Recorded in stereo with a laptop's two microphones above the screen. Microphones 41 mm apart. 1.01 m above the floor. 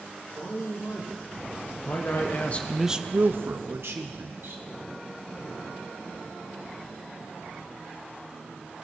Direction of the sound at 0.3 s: 80° left.